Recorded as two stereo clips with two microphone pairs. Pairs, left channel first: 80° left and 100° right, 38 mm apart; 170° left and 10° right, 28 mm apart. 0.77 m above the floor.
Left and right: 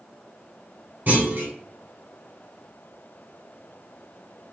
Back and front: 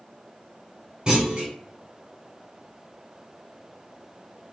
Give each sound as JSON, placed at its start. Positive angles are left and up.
{"t": 1.1, "sound": "a clunk", "azimuth_deg": -70, "distance_m": 1.9}